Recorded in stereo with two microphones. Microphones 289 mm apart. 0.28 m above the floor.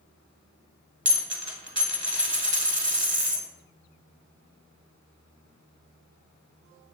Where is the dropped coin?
40° right (ahead or behind), 0.6 m.